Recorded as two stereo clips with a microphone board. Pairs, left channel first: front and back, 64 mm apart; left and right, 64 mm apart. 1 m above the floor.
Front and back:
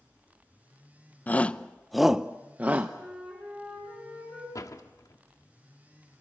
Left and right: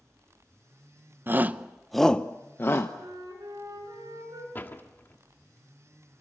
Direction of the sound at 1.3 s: 50° right.